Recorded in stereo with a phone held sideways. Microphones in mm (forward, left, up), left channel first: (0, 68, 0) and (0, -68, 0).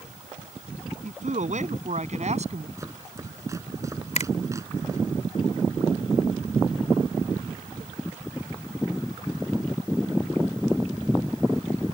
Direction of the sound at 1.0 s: 65° right (ahead or behind).